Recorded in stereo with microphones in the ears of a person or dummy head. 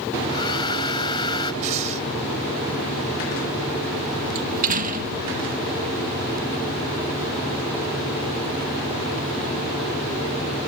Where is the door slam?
45° right (ahead or behind).